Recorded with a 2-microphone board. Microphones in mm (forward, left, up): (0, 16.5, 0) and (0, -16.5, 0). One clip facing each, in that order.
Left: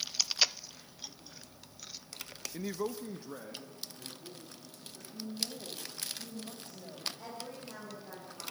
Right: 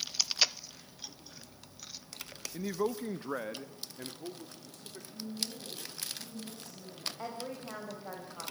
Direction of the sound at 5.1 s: 30° left (ahead or behind).